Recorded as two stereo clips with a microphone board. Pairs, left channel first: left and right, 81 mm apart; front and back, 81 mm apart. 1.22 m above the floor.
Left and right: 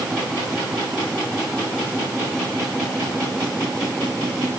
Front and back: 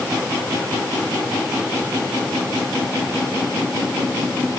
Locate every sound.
Only background noise.